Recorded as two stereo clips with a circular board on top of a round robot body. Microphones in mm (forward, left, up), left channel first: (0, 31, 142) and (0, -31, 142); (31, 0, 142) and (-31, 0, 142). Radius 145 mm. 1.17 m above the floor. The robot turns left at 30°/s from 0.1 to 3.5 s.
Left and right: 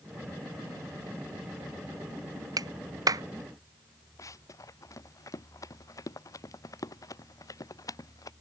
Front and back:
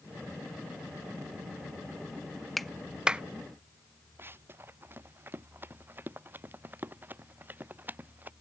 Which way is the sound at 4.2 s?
125° left.